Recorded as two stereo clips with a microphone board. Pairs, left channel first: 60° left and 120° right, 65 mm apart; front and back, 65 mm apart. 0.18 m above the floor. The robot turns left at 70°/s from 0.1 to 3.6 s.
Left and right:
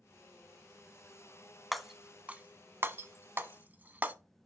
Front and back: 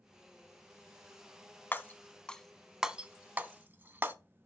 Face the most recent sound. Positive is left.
turn(degrees=-160)